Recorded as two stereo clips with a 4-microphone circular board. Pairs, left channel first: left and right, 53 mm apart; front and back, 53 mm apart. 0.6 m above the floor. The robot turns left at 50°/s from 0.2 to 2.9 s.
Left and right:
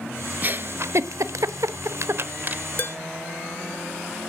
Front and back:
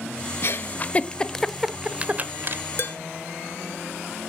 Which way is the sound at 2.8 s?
40° left.